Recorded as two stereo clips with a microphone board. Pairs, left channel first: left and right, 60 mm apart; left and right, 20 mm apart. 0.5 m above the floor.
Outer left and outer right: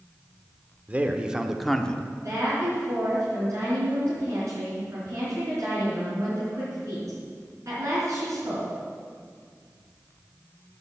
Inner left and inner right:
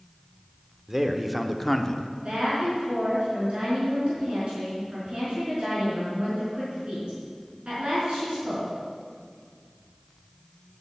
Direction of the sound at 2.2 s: 55° right (ahead or behind).